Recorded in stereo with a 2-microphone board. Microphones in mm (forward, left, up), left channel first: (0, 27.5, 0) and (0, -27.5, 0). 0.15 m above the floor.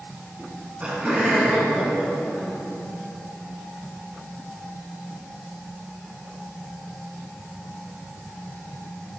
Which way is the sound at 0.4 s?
30° right (ahead or behind).